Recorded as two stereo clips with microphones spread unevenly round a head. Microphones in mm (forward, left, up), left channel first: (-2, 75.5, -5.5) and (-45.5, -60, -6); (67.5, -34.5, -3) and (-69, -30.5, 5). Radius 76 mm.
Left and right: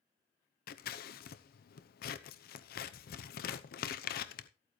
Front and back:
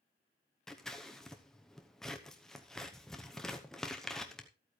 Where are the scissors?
85° left, 0.9 m.